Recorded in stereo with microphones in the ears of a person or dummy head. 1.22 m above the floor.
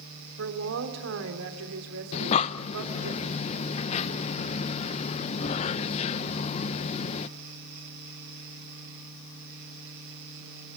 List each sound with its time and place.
0.4 s a woman speaking: 90° right, 3 m
2.1 s breathing: 35° left (ahead or behind), 0.5 m